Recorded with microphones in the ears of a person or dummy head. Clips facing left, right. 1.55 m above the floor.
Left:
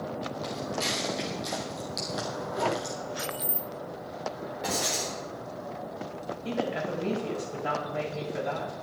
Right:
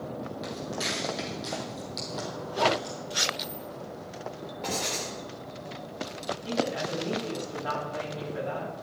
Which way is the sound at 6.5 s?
35° left (ahead or behind).